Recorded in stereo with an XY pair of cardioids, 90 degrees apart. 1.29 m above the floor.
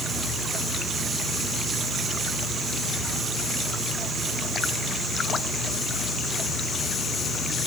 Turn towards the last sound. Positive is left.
No sound to turn to.